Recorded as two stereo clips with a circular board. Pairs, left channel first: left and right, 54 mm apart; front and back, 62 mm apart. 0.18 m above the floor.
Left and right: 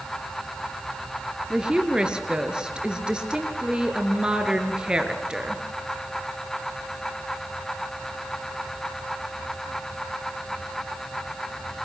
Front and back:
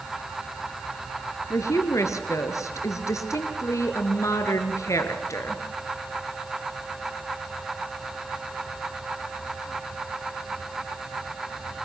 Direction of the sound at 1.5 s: 20° right.